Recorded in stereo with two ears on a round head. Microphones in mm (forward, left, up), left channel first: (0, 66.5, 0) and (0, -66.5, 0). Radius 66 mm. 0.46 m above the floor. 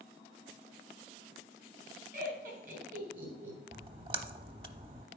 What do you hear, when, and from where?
2.1 s laughter: 65° right (ahead or behind), 4.5 m
3.7 s a splash: 35° right (ahead or behind), 0.6 m